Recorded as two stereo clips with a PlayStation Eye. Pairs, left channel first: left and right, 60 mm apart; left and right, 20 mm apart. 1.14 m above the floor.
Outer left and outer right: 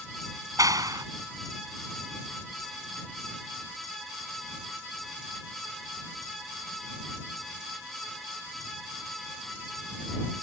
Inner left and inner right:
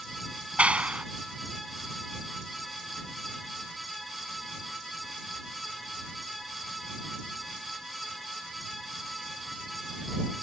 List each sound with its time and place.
0.6 s a clap: 80° right